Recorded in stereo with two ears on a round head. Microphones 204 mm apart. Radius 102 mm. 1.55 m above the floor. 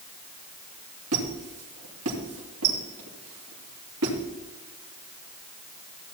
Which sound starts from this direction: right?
A squeak, at 1.1 s.